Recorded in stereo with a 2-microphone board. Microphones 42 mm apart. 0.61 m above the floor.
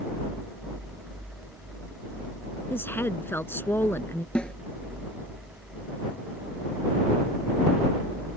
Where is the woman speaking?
60° left (ahead or behind).